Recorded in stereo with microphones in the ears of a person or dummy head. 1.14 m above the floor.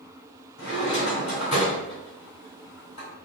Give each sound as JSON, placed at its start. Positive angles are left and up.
{"t": 0.6, "sound": "a drawer", "side_deg": 35, "distance_m": 1.6}